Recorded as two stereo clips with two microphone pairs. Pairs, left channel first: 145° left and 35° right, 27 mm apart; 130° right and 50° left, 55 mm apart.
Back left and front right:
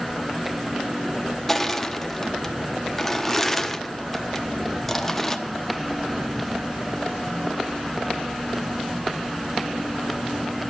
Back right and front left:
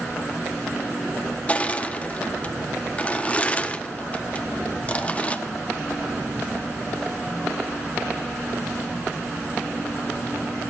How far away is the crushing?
About 0.8 m.